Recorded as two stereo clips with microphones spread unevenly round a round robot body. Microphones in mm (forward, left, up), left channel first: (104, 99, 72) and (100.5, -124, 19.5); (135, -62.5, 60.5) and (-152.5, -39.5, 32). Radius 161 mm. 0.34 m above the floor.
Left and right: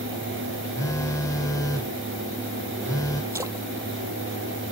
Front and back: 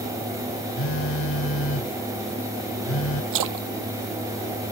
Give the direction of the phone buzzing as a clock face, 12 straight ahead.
12 o'clock.